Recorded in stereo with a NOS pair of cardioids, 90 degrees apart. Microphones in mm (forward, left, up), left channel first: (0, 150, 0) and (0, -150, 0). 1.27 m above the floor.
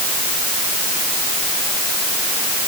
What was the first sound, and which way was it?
Only background noise.